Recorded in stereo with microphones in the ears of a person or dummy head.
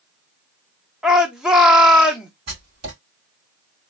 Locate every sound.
1.0 s a shout: centre (ahead or behind), 0.8 m
2.5 s writing: 60° right (ahead or behind), 3 m